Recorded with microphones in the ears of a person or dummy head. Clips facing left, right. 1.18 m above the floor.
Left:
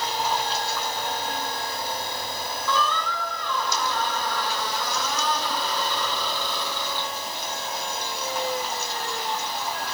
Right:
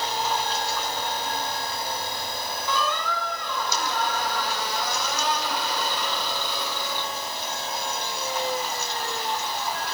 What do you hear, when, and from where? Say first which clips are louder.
2.7 s a squeak: left 1 dB; 10° right (ahead or behind), 3.5 m